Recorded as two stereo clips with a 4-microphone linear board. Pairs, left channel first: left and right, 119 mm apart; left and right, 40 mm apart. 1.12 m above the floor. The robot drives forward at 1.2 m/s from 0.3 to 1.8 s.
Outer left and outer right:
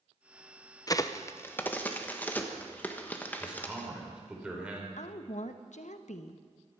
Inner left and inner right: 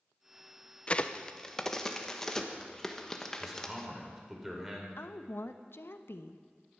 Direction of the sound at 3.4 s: 10° right (ahead or behind).